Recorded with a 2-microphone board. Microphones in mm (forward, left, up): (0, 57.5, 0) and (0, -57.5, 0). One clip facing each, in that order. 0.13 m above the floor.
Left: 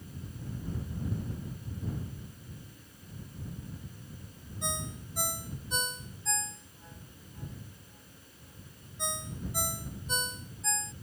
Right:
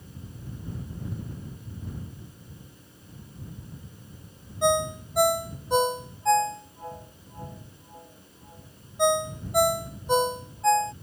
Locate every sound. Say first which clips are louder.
4.6 s a ringtone: right 16 dB; 65° right (ahead or behind)